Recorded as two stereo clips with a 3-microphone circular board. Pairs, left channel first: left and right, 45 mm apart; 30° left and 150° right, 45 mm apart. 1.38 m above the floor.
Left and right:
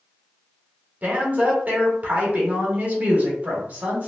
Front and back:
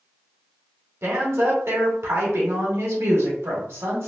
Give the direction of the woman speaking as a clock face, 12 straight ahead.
5 o'clock.